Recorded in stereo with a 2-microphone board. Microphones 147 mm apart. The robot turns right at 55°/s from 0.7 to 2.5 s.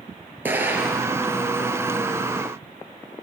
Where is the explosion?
15° right (ahead or behind), 2.5 m; by 1.1 s 5° left (ahead or behind), 2.5 m.